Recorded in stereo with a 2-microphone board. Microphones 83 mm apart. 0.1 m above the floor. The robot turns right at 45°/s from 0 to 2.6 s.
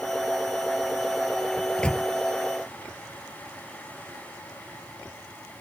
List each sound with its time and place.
1.6 s a microwave: centre (ahead or behind); by 2.1 s 20° left (ahead or behind)